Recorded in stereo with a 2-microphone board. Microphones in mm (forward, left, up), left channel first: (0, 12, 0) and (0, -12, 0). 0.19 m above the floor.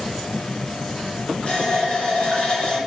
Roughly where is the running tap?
Left.